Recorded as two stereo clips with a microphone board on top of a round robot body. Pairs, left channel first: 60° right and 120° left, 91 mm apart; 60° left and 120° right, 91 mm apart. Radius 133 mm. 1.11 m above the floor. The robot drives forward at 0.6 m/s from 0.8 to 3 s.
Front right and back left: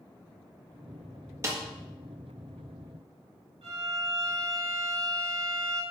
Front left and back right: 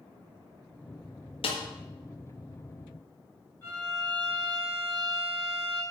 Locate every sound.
1.4 s a snare drum: 60° left, 1.7 m; by 1.6 s 65° left, 1.6 m
3.6 s a violin: 125° left, 5 m